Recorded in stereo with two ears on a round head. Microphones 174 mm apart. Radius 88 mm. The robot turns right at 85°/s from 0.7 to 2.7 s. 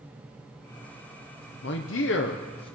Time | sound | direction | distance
1.6 | a man speaking | 60° left | 0.8 m